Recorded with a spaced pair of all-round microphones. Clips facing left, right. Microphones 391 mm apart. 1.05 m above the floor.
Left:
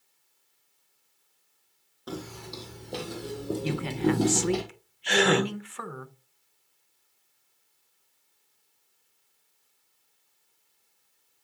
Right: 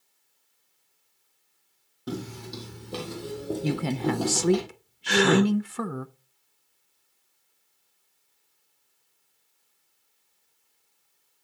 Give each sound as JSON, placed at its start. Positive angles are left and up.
{"t": 2.1, "sound": "footsteps", "side_deg": -35, "distance_m": 2.0}
{"t": 3.6, "sound": "a woman speaking", "side_deg": -55, "distance_m": 0.5}
{"t": 5.1, "sound": "a gasp", "side_deg": -20, "distance_m": 1.0}